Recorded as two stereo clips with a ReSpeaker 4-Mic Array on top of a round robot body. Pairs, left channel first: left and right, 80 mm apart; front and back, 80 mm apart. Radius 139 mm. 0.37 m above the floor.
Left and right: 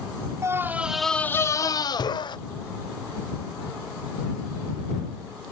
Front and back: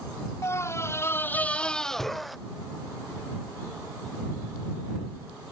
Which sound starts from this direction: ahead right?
A scream, at 0.4 s.